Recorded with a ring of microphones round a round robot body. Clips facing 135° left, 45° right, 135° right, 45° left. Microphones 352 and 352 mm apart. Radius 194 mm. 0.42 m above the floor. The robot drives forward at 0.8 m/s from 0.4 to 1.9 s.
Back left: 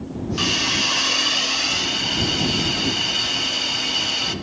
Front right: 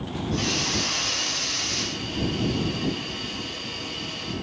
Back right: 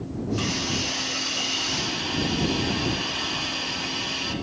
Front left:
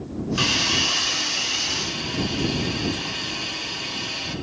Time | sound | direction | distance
0.4 | a hiss | 75° left | 0.8 m